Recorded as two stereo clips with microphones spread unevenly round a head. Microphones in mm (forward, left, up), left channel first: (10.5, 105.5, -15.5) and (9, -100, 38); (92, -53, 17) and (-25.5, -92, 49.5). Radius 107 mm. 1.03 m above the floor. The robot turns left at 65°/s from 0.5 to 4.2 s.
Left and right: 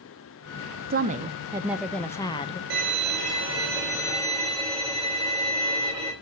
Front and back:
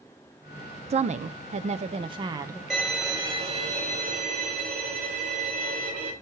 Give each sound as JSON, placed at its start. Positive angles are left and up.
{"t": 0.9, "sound": "a woman speaking", "azimuth_deg": -135, "distance_m": 0.7}
{"t": 2.7, "sound": "a violin", "azimuth_deg": -75, "distance_m": 5.5}